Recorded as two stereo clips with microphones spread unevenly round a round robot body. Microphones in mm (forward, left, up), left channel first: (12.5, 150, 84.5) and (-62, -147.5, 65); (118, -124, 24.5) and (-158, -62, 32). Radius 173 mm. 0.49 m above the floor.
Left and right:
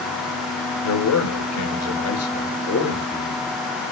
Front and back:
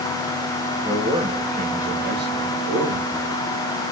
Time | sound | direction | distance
0.8 | a man speaking | 90° left | 2.5 m